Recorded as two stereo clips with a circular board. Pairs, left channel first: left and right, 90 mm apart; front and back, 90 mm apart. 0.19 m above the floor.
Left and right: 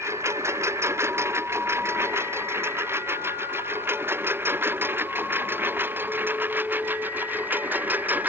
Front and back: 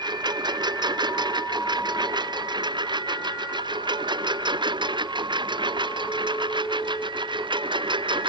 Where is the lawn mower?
150° right; by 8.3 s 160° right.